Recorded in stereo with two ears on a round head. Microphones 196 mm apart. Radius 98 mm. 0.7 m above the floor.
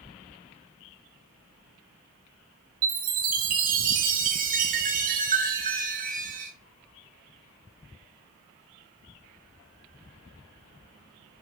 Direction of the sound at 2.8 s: 40° right (ahead or behind).